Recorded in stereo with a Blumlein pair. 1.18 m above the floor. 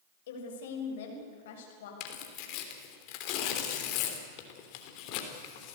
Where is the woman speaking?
55° left, 5 m.